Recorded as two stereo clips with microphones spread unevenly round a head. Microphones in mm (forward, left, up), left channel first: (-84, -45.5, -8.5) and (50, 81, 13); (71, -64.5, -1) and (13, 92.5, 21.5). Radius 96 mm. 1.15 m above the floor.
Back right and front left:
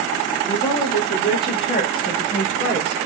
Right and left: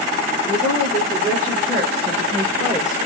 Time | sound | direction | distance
0.4 | a woman speaking | 175° left | 1.7 m